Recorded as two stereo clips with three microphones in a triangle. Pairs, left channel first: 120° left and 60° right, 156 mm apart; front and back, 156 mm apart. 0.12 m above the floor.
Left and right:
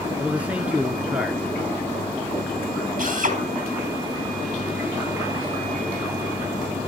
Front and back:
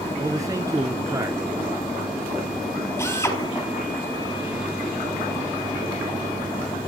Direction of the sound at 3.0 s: 70° right.